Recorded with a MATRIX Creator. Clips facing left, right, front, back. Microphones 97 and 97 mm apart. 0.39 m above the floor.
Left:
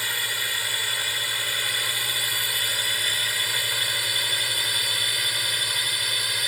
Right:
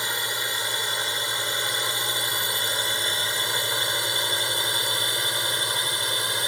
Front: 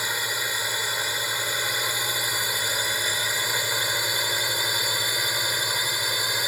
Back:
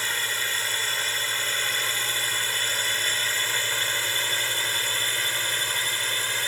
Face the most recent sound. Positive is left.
turn(degrees=-65)